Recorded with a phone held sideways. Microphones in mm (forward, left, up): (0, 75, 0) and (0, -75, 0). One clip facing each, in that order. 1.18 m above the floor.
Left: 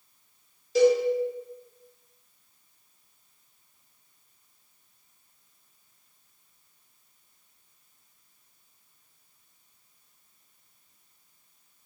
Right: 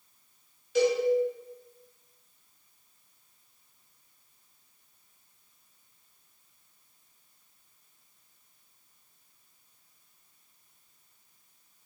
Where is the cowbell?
40° left (ahead or behind), 1.4 m.